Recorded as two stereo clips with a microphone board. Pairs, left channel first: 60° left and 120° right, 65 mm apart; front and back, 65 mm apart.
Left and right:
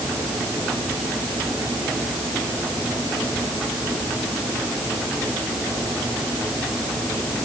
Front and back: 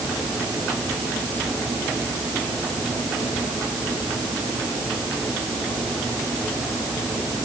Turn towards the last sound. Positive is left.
No sound to turn to.